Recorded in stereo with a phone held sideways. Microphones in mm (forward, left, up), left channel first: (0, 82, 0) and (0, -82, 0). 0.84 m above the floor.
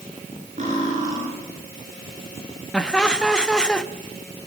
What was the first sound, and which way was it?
Cutlery clinking, 45° right (ahead or behind).